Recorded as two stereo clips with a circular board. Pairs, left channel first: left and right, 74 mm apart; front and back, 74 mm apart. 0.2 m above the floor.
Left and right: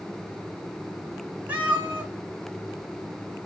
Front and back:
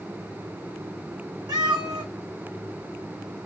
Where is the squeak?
I don't hear a squeak.